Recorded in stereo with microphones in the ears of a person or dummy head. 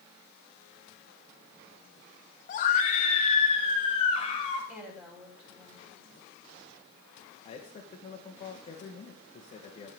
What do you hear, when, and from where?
2.5 s a scream: 45° left (ahead or behind), 1.7 m; by 4.6 s 30° left (ahead or behind), 4.5 m
4.7 s a woman speaking: 5° right (ahead or behind), 6 m
7.5 s a man speaking: 35° left (ahead or behind), 1.4 m